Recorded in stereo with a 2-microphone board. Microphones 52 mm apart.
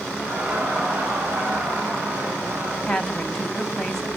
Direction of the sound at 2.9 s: 10° left (ahead or behind).